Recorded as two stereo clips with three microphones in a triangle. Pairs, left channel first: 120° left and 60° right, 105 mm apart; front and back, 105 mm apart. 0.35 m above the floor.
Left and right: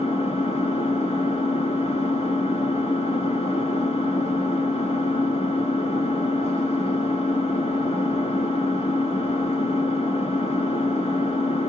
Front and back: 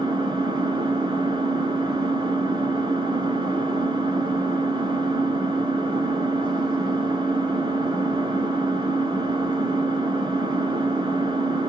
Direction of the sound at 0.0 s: 135° left.